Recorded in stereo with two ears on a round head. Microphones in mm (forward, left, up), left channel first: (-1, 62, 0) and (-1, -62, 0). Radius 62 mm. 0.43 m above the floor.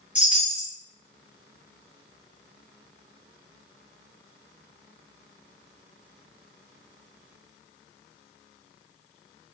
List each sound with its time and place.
0.1 s a chime: 10° right (ahead or behind), 0.9 m